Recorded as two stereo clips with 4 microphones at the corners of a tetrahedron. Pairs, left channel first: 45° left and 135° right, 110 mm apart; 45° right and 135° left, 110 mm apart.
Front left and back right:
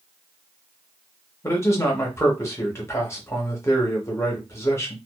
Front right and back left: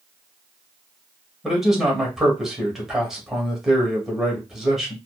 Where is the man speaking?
55° left, 0.9 m.